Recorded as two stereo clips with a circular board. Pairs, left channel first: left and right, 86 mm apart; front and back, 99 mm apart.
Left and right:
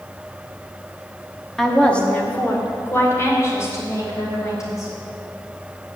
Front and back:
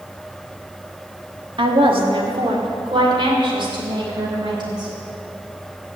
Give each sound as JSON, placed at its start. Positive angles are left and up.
{"t": 1.6, "sound": "a woman speaking", "azimuth_deg": 175, "distance_m": 1.3}